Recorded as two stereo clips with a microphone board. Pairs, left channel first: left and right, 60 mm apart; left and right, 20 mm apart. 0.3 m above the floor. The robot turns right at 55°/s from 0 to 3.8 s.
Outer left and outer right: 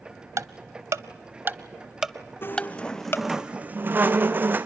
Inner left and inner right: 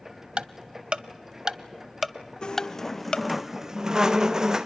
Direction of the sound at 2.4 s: 140° left.